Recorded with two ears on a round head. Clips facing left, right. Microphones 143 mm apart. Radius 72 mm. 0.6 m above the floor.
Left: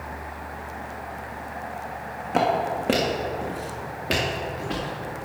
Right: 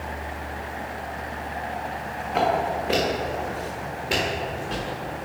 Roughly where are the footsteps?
Left.